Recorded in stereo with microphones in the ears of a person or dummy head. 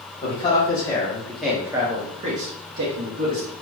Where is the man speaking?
35° left (ahead or behind), 1.2 m; by 3.5 s 70° right (ahead or behind), 1.2 m.